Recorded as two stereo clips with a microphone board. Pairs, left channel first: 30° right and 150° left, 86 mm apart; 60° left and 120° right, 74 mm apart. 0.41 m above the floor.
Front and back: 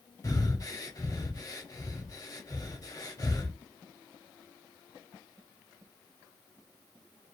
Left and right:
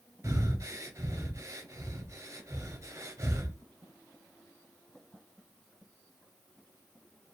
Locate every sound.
0.2 s breathing: 75° right, 0.6 m